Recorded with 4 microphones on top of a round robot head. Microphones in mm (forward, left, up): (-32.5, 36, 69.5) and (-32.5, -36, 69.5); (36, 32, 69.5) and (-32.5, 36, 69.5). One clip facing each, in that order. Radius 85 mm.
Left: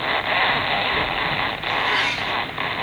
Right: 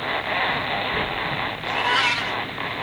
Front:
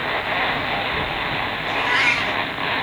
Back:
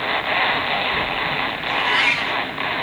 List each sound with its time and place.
1.6 s a cat meowing: 85° right, 3.5 m